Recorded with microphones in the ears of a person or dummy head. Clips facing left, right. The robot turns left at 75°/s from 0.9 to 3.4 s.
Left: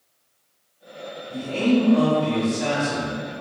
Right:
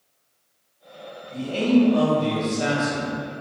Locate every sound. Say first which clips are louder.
1.3 s a man speaking: right 1 dB; 10° left, 1.1 m; by 3.1 s 130° right, 1.1 m